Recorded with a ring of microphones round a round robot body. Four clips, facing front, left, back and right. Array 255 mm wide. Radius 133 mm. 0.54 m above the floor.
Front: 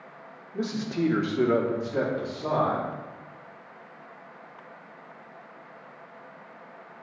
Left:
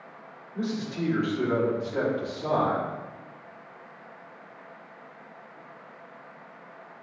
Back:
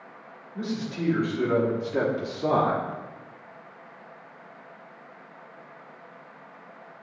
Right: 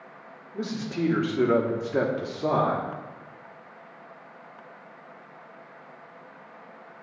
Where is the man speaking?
25° right, 1.6 m; by 2.9 s 155° right, 1.5 m.